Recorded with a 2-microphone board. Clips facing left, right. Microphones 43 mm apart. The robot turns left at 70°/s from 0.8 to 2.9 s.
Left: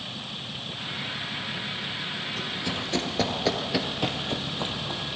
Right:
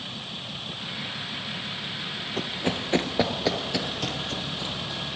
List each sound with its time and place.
2.4 s running footsteps: 45° right (ahead or behind), 1.4 m; by 5.0 s 40° left (ahead or behind), 2 m